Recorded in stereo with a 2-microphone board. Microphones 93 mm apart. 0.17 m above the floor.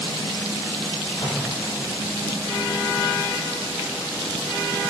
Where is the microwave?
65° left (ahead or behind), 4 m.